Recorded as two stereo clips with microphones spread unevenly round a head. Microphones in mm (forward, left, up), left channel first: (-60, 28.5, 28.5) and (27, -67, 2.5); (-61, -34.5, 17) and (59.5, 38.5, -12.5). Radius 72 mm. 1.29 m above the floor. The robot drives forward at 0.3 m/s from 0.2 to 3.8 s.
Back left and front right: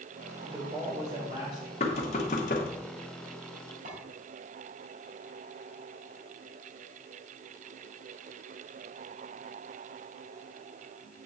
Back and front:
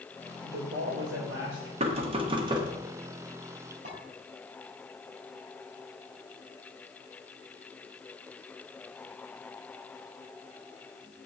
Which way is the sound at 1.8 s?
80° left.